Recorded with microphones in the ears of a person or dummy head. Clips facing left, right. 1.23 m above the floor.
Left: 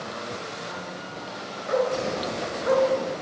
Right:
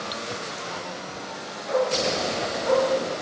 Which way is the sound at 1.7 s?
75° left (ahead or behind).